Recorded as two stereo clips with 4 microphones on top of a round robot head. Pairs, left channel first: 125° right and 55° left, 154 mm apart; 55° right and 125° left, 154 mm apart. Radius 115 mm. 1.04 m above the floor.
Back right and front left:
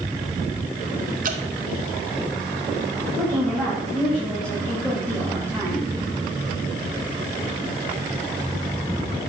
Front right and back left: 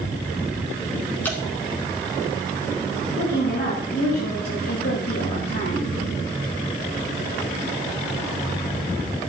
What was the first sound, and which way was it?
Dripping, 20° left.